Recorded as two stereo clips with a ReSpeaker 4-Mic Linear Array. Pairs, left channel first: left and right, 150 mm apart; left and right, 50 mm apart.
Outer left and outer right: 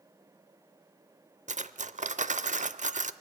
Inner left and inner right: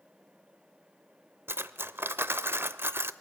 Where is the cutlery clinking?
55° right (ahead or behind), 0.6 m.